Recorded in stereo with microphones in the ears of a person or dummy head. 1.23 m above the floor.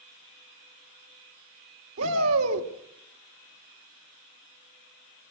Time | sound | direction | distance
2.0 | a shout | 80° right | 2 m